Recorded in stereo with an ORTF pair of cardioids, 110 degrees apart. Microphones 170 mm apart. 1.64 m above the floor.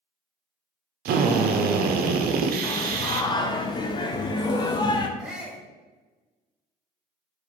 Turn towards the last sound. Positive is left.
turn(degrees=-5)